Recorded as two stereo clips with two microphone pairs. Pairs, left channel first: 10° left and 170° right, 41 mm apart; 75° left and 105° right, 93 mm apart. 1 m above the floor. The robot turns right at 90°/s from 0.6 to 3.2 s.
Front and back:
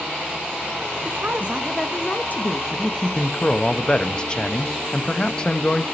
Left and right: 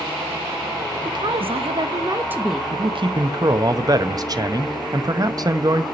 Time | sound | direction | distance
1.1 | a woman speaking | 150° right | 0.6 m
2.7 | a man speaking | 105° right | 0.7 m